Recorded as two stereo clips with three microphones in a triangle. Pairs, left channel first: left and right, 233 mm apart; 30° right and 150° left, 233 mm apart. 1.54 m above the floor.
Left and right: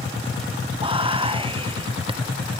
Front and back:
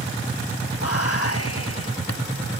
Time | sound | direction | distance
0.8 | whispering | 20° right | 1.5 m